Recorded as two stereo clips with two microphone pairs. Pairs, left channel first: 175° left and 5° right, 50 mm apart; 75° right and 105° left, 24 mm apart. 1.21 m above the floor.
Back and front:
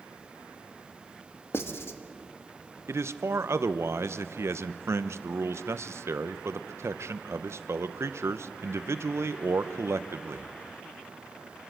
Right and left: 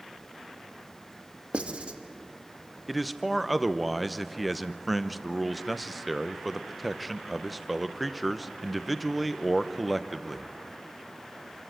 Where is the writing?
140° left, 1.2 m.